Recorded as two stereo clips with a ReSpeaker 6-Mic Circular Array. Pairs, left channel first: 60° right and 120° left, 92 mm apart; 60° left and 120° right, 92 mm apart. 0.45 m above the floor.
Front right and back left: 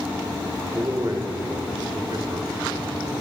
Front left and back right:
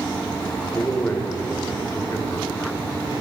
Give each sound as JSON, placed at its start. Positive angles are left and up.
{"t": 0.7, "sound": "a man speaking", "azimuth_deg": 115, "distance_m": 1.0}